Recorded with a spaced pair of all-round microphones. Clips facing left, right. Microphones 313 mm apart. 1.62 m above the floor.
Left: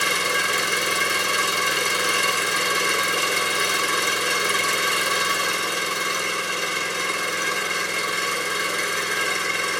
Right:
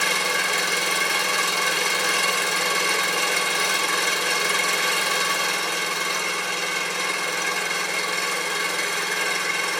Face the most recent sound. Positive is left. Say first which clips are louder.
# left 1 dB
turn(degrees=20)  # may be behind; listen again after turning